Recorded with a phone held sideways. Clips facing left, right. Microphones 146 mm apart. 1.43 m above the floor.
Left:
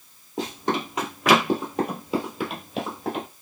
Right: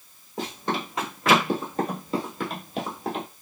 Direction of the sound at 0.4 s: 20° left (ahead or behind).